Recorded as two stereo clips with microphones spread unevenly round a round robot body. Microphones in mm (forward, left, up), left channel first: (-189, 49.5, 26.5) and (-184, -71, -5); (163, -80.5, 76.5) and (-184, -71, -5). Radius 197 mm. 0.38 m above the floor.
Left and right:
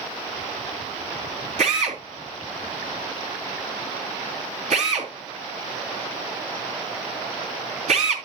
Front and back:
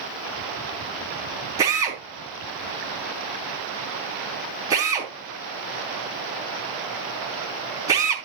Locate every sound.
1.6 s a drill: 105° right, 4 m